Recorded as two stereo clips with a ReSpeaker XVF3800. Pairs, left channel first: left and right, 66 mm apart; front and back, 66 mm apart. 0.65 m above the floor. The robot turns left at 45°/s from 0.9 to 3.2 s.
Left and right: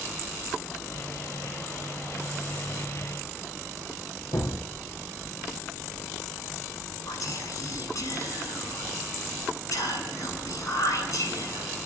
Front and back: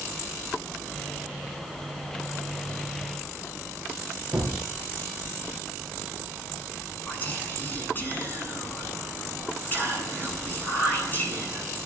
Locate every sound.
4.3 s a gunshot: 100° left, 4 m
7.1 s whispering: 60° left, 8 m